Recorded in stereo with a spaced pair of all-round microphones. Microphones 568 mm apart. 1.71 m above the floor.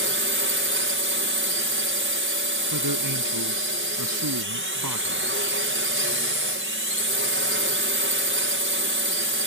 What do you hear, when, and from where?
0.0 s a drone: 20° right (ahead or behind)
2.7 s a man speaking: 35° right (ahead or behind)